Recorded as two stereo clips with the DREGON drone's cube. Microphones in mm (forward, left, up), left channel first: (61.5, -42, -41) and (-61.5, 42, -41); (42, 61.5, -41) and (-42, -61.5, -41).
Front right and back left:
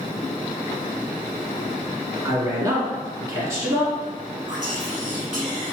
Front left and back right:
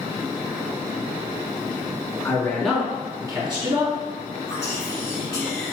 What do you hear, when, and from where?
2.2 s a man speaking: 110° left, 1.1 m; by 4.0 s 145° right, 1.4 m
4.5 s whispering: 110° left, 1.4 m